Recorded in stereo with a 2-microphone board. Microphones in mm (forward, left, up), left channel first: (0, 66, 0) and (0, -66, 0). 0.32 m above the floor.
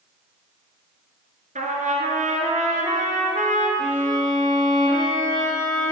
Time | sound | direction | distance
1.6 | a trumpet | 80° right | 1.5 m
3.8 | a violin | 30° right (ahead or behind) | 3 m